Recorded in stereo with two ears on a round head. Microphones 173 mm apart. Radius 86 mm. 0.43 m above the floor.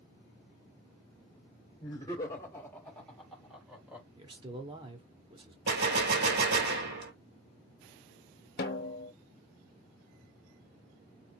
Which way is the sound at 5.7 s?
60° right (ahead or behind).